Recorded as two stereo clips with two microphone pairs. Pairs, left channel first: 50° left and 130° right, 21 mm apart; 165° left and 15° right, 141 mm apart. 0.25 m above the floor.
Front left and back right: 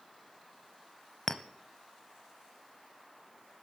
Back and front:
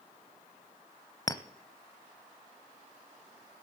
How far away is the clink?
About 0.7 m.